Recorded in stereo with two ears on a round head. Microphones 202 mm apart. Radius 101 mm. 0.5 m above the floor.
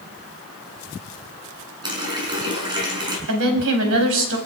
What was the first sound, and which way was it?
A running tap, 20° right (ahead or behind).